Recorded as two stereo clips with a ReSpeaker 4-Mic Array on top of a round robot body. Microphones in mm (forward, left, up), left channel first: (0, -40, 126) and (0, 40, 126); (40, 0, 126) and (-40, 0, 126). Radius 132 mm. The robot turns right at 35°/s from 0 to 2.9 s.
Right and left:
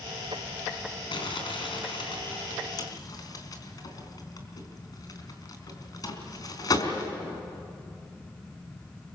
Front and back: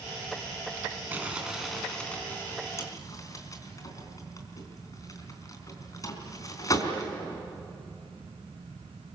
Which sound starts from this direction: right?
Crumpling, at 1.1 s.